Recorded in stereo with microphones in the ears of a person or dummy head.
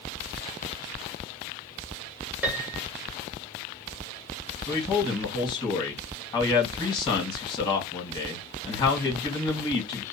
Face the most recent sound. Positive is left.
turn(degrees=25)  # may be behind; listen again after turning